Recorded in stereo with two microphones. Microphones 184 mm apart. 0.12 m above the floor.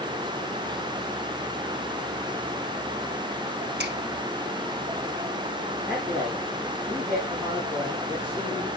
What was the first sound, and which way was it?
A finger snap, 65° right (ahead or behind).